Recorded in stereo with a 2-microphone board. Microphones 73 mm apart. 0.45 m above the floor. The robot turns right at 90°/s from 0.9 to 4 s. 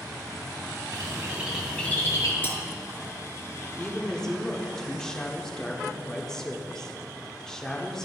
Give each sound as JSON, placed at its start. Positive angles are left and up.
{"t": 0.9, "sound": "a bird", "azimuth_deg": -60, "distance_m": 1.7}
{"t": 2.4, "sound": "cutlery clinking", "side_deg": 30, "distance_m": 1.6}
{"t": 3.8, "sound": "a woman speaking", "side_deg": 15, "distance_m": 0.8}